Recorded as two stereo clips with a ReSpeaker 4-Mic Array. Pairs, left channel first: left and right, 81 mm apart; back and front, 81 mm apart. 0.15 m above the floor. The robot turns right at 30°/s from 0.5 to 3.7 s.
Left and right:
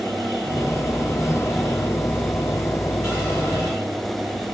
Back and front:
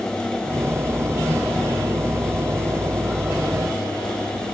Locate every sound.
Only background noise.